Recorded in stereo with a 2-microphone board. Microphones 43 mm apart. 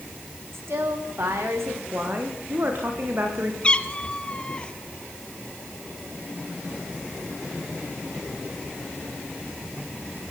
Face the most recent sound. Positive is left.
turn(degrees=20)  # may be behind; listen again after turning